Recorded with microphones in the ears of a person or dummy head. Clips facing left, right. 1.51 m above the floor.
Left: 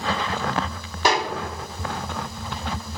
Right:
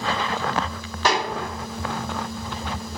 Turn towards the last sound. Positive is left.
turn(degrees=10)  # may be behind; listen again after turning